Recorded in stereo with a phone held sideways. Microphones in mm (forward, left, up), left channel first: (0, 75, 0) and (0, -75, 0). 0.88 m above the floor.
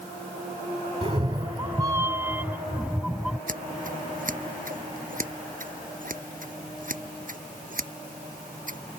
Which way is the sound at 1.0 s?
40° right (ahead or behind).